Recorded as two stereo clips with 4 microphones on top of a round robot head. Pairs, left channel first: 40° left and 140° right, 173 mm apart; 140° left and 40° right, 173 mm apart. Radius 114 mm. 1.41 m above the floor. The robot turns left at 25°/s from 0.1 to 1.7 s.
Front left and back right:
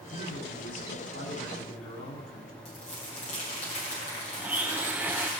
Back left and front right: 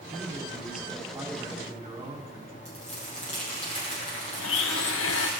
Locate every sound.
0.1 s a man speaking: 60° left, 4.5 m; by 2.5 s 20° left, 4.5 m
2.6 s crumpling: 90° left, 7.5 m
4.4 s a blender: 140° left, 0.5 m